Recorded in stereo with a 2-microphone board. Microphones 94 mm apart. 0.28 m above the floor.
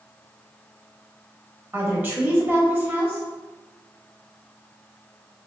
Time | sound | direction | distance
1.7 | a woman speaking | 20° right (ahead or behind) | 0.9 m